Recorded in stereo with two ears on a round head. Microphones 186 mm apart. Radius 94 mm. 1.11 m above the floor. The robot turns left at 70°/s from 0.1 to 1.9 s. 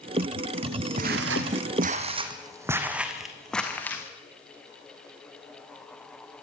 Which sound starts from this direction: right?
Footsteps, at 1.0 s.